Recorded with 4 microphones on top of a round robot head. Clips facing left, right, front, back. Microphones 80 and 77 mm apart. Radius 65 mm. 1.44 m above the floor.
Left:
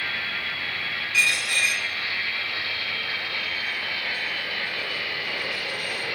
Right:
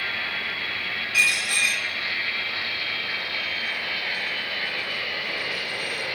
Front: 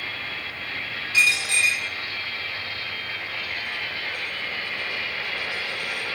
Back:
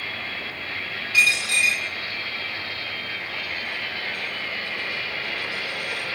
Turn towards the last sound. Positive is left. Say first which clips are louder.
# even, back 1 dB
turn(degrees=-20)